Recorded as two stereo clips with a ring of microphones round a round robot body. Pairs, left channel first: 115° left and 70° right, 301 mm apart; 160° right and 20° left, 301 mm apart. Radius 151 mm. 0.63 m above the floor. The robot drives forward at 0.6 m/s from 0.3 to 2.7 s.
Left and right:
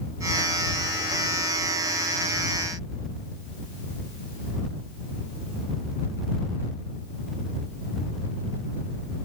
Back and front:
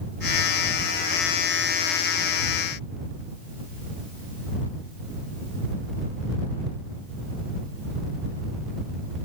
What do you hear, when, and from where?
Only background noise.